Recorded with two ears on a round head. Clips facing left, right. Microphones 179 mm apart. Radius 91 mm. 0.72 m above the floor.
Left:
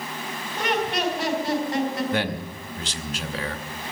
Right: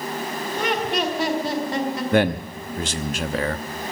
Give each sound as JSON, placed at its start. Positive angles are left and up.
{"t": 0.6, "sound": "laughter", "side_deg": -65, "distance_m": 4.0}
{"t": 2.1, "sound": "a man speaking", "side_deg": -45, "distance_m": 1.0}